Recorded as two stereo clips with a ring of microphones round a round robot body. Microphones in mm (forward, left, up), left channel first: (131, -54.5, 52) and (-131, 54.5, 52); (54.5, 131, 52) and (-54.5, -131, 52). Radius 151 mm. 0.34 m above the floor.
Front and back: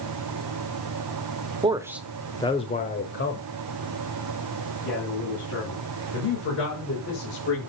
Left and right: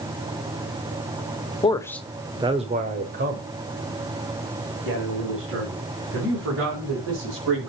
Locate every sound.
1.6 s a man speaking: 110° left, 0.9 m; by 7.7 s 70° right, 4.5 m